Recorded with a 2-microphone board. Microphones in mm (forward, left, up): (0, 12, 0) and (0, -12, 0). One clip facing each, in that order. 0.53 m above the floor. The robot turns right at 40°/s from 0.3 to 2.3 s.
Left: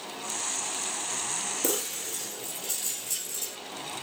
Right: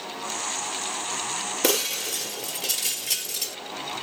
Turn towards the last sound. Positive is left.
turn(degrees=-80)